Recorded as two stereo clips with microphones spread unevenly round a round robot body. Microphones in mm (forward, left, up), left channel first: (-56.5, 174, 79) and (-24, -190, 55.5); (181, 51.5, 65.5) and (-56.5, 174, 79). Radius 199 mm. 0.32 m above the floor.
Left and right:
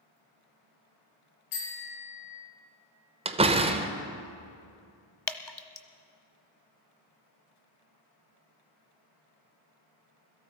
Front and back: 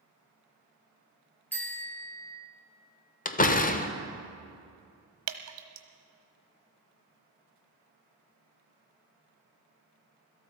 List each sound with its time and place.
1.5 s a bicycle bell: 55° left, 6 m
3.2 s a door slam: 30° right, 0.9 m
5.3 s dripping: straight behind, 1.1 m